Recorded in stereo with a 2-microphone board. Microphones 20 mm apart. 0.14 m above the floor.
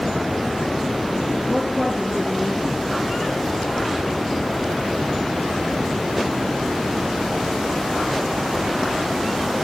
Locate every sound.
1.5 s a woman speaking: 10° left (ahead or behind), 2.5 m